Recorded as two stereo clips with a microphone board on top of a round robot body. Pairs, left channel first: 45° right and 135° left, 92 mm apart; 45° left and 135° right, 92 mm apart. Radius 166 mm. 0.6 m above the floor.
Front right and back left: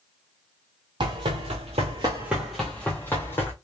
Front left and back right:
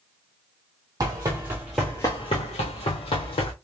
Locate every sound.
1.0 s running footsteps: 170° left, 1.1 m; by 3.5 s 20° left, 1.5 m